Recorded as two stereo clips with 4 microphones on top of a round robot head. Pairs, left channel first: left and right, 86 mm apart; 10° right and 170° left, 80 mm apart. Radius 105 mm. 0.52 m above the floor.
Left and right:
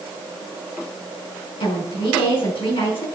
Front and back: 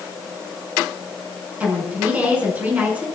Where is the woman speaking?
100° left, 6 m.